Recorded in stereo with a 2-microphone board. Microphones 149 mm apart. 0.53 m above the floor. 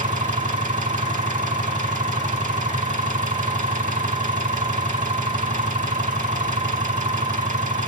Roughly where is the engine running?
Right.